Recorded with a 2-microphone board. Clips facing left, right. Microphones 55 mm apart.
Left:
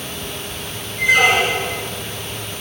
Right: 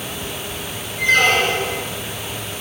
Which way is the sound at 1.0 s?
10° left (ahead or behind).